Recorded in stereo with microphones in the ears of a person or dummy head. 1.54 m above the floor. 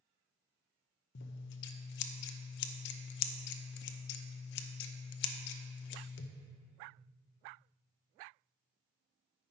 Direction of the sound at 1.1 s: 60° left (ahead or behind).